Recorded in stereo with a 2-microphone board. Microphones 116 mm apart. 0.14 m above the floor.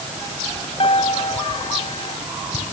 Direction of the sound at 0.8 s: 50° left (ahead or behind).